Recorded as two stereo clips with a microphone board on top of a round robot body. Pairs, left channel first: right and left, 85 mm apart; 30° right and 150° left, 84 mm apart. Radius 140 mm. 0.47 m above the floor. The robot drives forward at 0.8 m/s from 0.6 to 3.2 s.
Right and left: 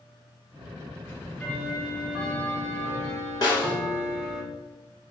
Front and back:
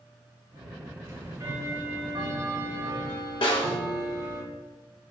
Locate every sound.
1.0 s ticking: 155° right, 1.7 m; by 4.4 s 165° right, 3 m
3.4 s a snare drum: 50° right, 1.8 m